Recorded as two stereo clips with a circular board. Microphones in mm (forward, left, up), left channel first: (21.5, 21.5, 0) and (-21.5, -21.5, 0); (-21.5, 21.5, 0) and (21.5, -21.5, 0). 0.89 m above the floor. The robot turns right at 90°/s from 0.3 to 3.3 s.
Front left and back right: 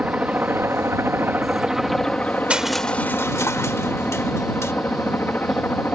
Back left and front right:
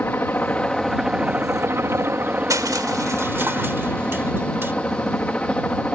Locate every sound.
0.0 s a helicopter: 170° left; by 6.0 s 80° left
2.5 s crushing: 65° right; by 4.7 s 5° left